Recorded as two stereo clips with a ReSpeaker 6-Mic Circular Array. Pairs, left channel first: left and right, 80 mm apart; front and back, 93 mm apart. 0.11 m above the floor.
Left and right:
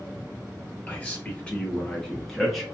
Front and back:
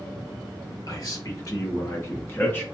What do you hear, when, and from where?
0.9 s a man speaking: 25° left, 2 m; by 2.6 s straight ahead, 1.5 m